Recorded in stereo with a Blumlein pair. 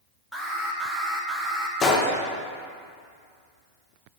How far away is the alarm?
About 1.1 m.